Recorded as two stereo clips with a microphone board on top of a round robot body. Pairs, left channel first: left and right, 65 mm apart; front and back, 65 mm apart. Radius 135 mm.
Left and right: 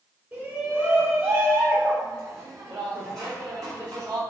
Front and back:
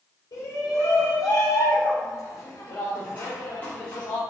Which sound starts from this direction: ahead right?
A shout, at 0.3 s.